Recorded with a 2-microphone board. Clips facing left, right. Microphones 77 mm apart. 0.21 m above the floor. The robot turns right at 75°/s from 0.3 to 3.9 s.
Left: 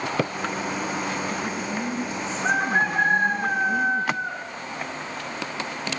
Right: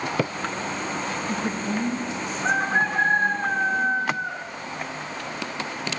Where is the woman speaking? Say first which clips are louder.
Right 2 dB; 90° right, 5.5 m; by 4.2 s 105° left, 5.5 m.